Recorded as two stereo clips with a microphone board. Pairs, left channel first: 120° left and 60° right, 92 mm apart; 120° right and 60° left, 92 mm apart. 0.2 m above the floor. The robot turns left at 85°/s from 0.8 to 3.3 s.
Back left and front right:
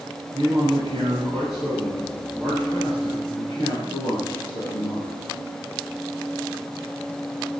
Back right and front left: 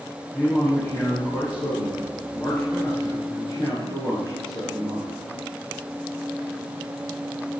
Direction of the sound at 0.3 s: 45° right.